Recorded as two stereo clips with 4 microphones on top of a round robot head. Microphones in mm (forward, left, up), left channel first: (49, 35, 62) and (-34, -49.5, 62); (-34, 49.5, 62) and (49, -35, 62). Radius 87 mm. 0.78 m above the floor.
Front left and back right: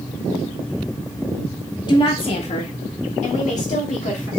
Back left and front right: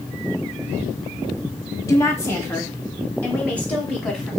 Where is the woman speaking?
80° left, 1.2 m; by 4.3 s 55° left, 2.5 m.